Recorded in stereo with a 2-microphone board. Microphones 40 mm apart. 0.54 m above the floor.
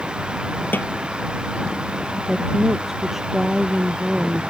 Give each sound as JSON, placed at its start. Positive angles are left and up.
{"t": 0.7, "sound": "a snare drum", "side_deg": 50}
{"t": 2.3, "sound": "a woman speaking", "side_deg": -5}